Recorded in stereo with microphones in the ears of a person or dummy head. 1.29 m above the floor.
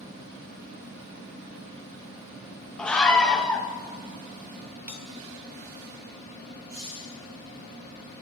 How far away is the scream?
About 1.8 m.